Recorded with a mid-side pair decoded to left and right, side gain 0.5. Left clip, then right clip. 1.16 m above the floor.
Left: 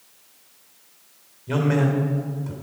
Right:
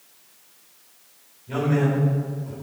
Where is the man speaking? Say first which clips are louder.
Left 1 dB; 60° left, 4 m.